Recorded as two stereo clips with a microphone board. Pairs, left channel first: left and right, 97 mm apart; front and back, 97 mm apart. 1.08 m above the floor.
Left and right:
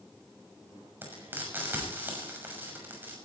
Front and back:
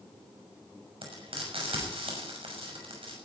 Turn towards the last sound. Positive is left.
turn(degrees=-160)